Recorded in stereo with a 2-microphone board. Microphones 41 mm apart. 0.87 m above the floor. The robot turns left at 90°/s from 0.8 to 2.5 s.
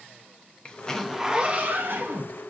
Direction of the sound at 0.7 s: 25° left.